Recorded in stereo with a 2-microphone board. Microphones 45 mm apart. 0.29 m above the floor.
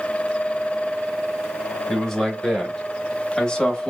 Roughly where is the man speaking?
Centre.